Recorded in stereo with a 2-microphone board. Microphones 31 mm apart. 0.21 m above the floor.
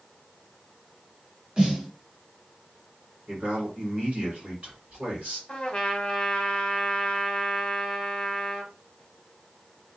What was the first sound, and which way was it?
A snare drum, 25° right (ahead or behind).